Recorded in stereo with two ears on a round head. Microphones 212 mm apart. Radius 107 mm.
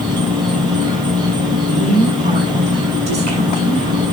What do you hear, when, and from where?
0.0 s an insect: 20° right (ahead or behind), 2.5 m
1.7 s a woman speaking: 30° right (ahead or behind), 7 m